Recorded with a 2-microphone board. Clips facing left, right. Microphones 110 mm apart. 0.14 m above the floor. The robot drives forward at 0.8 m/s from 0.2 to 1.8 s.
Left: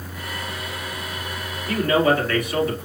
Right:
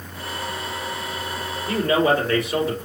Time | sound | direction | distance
1.7 | a man speaking | 30° right (ahead or behind) | 2.5 m